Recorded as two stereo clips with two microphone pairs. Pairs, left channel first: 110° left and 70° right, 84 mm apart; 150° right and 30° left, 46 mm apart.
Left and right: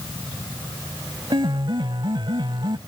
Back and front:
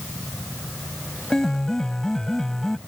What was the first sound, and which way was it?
A piano, 70° right.